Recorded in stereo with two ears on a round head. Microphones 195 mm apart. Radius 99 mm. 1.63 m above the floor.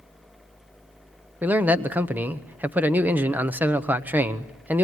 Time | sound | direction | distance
1.4 | a man speaking | 10° right (ahead or behind) | 0.8 m